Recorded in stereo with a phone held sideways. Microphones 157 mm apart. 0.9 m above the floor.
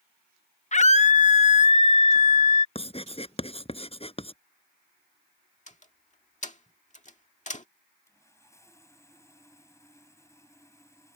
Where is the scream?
50° left (ahead or behind).